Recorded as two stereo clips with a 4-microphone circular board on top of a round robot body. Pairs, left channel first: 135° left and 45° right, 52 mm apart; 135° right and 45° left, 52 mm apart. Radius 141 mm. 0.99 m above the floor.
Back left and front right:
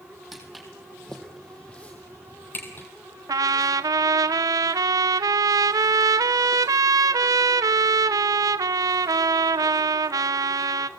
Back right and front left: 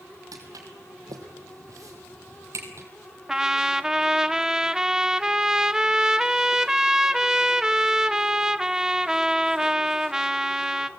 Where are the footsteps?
40° left, 2.5 m; by 2.9 s 85° left, 2 m.